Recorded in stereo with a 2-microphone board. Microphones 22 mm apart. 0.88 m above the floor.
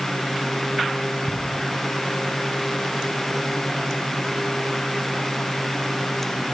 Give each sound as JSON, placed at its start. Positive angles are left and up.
{"t": 1.3, "sound": "ticking", "side_deg": -40, "distance_m": 1.5}